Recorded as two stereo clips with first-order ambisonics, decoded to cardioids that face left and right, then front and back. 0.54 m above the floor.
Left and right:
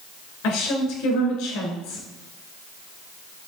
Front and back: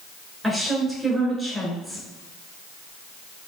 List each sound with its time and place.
0.4 s a woman speaking: 95° left, 1.7 m